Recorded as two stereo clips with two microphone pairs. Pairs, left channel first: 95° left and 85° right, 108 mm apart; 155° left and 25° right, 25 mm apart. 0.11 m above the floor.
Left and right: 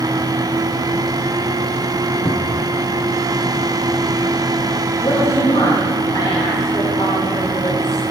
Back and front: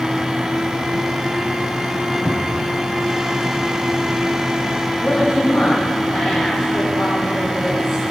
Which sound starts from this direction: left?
A cupboard door, at 2.2 s.